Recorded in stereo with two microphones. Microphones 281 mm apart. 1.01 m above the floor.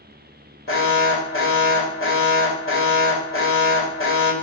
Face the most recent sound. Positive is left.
turn(degrees=45)  # may be behind; listen again after turning